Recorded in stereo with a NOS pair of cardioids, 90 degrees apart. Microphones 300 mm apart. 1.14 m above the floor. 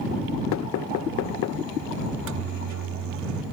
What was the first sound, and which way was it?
Knocking, 65° left.